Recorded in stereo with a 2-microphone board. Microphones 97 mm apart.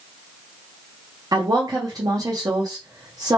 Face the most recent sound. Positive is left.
turn(degrees=-40)  # may be behind; listen again after turning